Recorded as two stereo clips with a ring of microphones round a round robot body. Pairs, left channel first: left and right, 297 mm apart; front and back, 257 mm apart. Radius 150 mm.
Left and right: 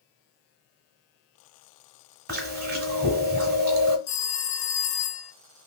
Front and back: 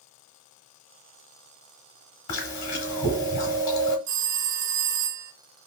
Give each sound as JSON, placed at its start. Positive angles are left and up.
{"t": 2.3, "sound": "chewing", "azimuth_deg": -30, "distance_m": 1.2}
{"t": 4.1, "sound": "a phone ringing", "azimuth_deg": 140, "distance_m": 0.6}